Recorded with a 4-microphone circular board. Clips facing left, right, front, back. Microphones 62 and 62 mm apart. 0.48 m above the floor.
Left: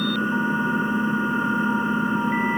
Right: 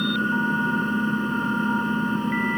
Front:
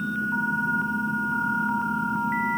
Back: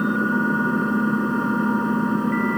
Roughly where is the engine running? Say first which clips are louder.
Even, back 5 dB; behind.